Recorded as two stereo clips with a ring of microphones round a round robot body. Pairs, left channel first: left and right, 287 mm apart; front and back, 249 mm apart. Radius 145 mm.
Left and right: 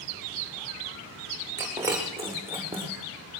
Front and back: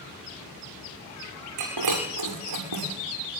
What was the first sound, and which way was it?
Breaking glass, 170° right.